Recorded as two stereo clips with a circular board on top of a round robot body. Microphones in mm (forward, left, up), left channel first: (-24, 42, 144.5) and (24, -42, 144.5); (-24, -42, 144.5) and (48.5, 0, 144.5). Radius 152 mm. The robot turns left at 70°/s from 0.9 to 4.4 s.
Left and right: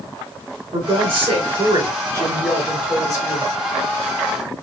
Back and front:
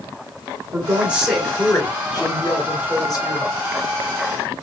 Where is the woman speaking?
35° right, 3.5 m; by 3.5 s 145° left, 3.5 m.